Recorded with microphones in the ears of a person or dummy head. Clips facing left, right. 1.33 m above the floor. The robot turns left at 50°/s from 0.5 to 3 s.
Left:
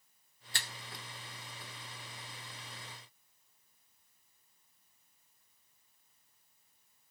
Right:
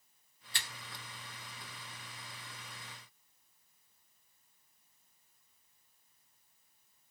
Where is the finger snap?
40° left (ahead or behind), 0.8 m; by 0.7 s 35° left (ahead or behind), 0.8 m.